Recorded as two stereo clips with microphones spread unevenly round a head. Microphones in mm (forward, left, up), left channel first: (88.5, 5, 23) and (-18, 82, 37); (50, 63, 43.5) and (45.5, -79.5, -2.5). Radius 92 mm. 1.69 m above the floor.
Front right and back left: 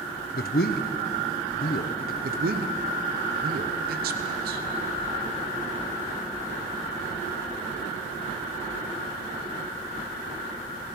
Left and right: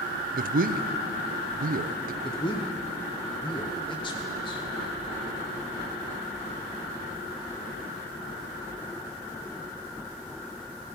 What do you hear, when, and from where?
0.3 s a man speaking: 60° right, 0.7 m
2.2 s a man speaking: 150° left, 0.9 m